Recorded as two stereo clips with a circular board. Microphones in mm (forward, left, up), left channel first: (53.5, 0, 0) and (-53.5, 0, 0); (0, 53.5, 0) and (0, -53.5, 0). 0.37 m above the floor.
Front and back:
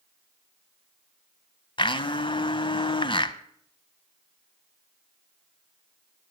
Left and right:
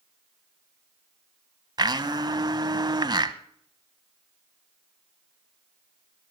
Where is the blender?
40° right, 0.7 m.